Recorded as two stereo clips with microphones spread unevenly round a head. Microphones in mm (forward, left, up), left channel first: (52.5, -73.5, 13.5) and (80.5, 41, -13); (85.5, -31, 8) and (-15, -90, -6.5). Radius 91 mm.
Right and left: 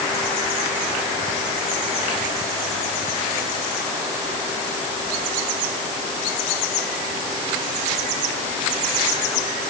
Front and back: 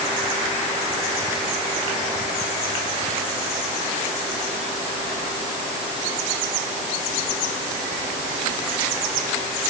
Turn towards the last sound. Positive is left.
No sound to turn to.